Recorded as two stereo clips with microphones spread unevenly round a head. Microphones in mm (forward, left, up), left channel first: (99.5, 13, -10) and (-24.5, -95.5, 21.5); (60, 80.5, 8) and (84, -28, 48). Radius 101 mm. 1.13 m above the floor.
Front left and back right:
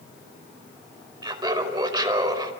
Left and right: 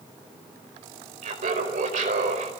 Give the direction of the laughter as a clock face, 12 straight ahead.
3 o'clock.